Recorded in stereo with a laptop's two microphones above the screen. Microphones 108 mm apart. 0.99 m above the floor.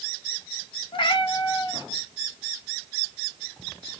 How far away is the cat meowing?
About 0.7 m.